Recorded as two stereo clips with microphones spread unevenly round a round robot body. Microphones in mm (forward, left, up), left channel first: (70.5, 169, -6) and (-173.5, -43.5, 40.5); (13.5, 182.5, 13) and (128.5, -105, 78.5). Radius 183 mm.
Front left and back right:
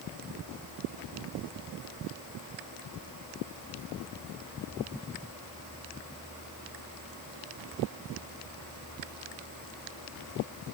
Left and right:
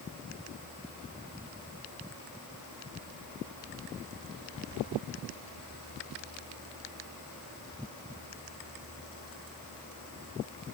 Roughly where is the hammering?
No hammering in this recording.